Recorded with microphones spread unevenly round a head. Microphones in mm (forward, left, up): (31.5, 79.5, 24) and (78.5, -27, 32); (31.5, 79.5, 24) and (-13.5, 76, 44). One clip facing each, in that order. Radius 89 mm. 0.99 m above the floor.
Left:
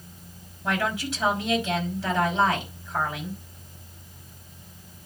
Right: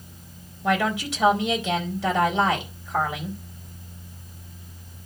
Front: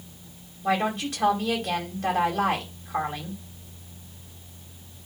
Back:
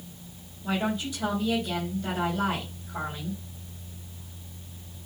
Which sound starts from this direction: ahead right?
A woman speaking, at 0.6 s.